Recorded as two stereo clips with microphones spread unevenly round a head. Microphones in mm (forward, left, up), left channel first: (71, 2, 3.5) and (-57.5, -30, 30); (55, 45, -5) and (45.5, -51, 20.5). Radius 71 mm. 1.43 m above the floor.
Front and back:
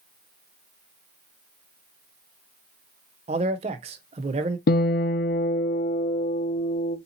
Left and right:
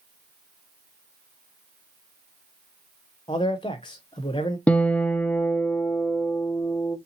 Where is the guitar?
5° left, 0.6 m.